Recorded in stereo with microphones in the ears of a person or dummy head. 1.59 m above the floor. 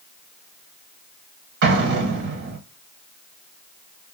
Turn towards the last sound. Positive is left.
turn(degrees=-55)  # may be behind; listen again after turning